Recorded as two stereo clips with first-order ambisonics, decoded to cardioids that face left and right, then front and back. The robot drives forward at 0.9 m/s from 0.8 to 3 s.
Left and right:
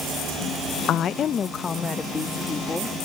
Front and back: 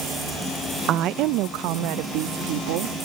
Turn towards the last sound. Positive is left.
turn(degrees=170)